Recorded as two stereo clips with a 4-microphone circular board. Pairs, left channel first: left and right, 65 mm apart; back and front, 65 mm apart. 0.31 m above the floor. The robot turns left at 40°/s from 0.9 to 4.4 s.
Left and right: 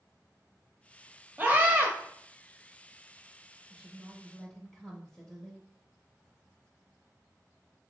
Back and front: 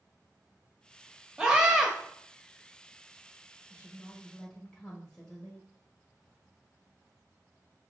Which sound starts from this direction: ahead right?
A scream, at 1.4 s.